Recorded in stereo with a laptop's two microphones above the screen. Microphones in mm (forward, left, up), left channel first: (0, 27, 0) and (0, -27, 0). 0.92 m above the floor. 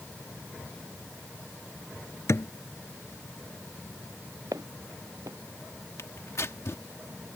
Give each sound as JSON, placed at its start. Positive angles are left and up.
{"t": 2.3, "sound": "a thud", "side_deg": 60}
{"t": 4.5, "sound": "footsteps", "side_deg": -80}
{"t": 6.0, "sound": "tearing paper", "side_deg": 55}